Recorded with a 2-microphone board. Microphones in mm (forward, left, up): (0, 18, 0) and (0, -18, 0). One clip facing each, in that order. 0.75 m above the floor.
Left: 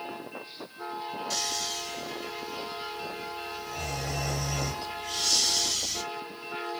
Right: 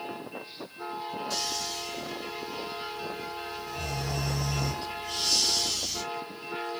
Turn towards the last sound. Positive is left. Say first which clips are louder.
# even
turn(degrees=85)